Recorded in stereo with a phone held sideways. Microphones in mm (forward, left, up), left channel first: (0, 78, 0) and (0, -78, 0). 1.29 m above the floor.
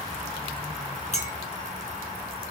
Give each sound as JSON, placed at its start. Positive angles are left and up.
{"t": 1.1, "sound": "a clink", "side_deg": 45, "distance_m": 0.9}